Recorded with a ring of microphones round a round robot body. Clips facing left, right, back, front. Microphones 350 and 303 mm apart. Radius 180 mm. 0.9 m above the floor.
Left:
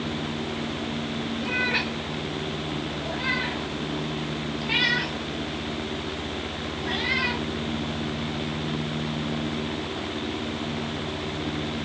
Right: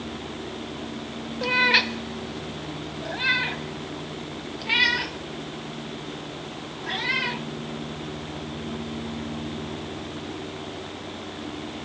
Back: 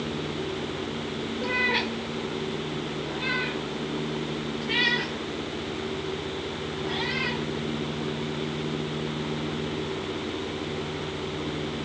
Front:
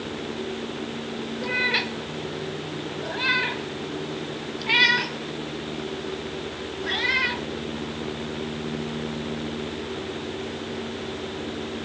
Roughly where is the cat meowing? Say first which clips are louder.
Right 1 dB, back 1 dB; right.